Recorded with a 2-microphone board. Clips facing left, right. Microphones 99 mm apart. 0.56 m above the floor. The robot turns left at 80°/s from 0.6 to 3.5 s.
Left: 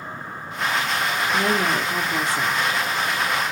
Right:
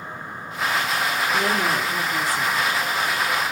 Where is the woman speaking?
5° left (ahead or behind), 0.9 m; by 2.7 s 20° left (ahead or behind), 0.9 m.